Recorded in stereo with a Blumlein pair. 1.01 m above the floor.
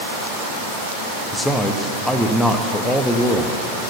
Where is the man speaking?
5° left, 1.2 m.